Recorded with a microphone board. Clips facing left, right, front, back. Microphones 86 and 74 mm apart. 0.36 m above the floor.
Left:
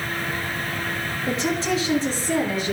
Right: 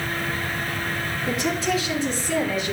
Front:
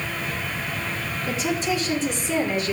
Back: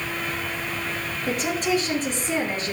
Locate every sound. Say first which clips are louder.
1.3 s a woman speaking: left 1 dB, back 1 dB; 150° left, 6 m; by 2.7 s 130° left, 4.5 m